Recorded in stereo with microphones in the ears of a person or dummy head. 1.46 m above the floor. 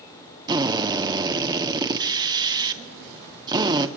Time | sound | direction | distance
0.5 | a drill | 20° right (ahead or behind) | 2.5 m